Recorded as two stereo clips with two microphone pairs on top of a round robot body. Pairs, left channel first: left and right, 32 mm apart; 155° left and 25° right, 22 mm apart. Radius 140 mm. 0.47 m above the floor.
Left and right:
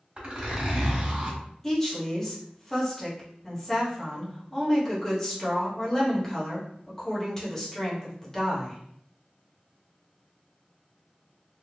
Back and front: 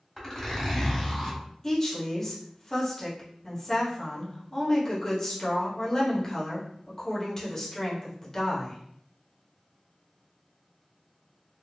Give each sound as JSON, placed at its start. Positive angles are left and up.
{"t": 0.2, "sound": "a zipper", "azimuth_deg": -135, "distance_m": 1.6}
{"t": 1.6, "sound": "a woman speaking", "azimuth_deg": 155, "distance_m": 1.2}